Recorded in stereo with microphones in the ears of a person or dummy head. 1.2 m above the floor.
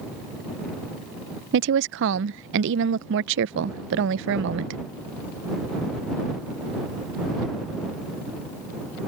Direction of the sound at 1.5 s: 70° right (ahead or behind).